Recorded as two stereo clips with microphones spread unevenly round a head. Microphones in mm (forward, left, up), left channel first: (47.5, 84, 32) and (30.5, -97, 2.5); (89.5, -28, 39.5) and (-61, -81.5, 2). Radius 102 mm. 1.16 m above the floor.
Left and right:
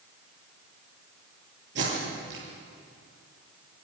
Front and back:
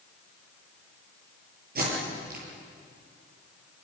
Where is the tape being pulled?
135° right, 10 m.